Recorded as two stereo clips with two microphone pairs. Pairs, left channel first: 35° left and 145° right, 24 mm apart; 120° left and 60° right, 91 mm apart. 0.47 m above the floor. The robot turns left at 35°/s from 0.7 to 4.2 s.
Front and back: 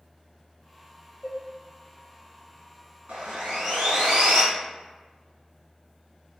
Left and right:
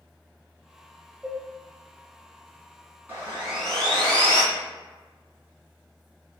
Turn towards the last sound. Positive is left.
turn(degrees=-165)